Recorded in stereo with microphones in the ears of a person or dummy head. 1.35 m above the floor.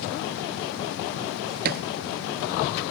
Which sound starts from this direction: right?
A thud, at 1.6 s.